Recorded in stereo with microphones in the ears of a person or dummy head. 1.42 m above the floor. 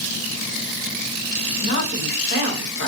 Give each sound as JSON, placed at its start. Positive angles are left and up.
{"t": 1.6, "sound": "a woman speaking", "side_deg": 65, "distance_m": 1.1}